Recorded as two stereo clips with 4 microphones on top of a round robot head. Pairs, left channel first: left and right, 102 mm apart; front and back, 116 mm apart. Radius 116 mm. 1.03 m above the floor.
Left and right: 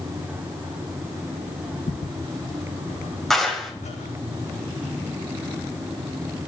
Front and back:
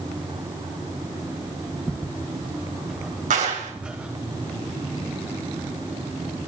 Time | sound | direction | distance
1.9 | footsteps | 85° left | 3 m
3.3 | a clap | 175° left | 5 m